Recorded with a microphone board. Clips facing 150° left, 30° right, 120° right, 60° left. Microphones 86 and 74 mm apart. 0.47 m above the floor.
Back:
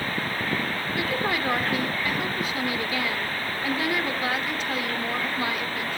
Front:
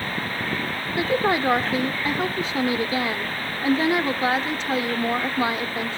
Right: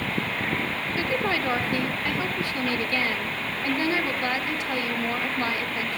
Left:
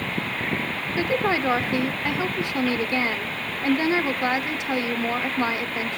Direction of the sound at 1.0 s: 5° left.